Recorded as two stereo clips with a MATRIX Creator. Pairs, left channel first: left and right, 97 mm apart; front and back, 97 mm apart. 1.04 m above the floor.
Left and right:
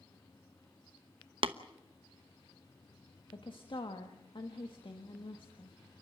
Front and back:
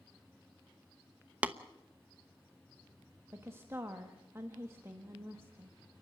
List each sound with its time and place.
1.4 s tapping: 105° right, 0.9 m
3.3 s a woman speaking: 115° left, 1.6 m